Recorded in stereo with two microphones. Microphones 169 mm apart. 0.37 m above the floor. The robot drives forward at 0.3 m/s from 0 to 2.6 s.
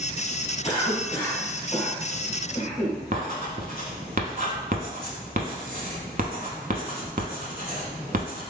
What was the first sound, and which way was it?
A cough, 40° left (ahead or behind).